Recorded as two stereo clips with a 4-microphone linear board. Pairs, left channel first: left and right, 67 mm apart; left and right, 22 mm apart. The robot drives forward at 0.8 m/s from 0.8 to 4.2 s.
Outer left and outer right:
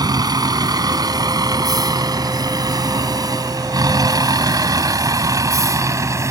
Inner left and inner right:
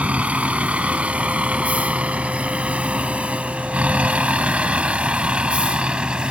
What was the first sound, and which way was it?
A vehicle, 85° right.